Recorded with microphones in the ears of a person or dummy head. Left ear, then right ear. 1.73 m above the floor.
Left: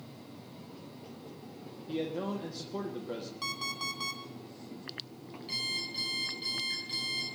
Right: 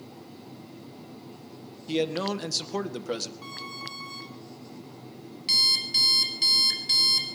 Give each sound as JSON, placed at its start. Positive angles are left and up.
{"t": 1.9, "sound": "a man speaking", "side_deg": -70, "distance_m": 1.7}
{"t": 3.4, "sound": "an alarm clock", "side_deg": 60, "distance_m": 3.0}
{"t": 5.5, "sound": "an alarm clock", "side_deg": -55, "distance_m": 5.0}